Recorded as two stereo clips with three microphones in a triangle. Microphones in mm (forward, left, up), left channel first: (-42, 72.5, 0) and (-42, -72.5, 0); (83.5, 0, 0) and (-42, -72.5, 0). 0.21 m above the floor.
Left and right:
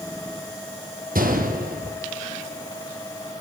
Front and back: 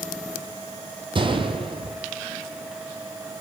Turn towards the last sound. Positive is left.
turn(degrees=-95)